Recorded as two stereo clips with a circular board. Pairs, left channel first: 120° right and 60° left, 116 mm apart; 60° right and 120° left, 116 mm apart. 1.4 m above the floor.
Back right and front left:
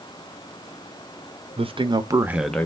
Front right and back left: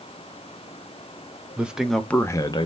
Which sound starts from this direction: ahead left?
A man speaking, at 1.6 s.